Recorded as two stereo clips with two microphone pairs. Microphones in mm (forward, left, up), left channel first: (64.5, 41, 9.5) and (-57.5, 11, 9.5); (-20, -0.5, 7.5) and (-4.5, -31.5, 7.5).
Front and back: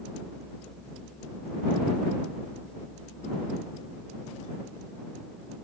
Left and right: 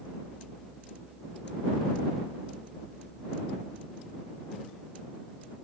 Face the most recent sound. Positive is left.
No sound to turn to.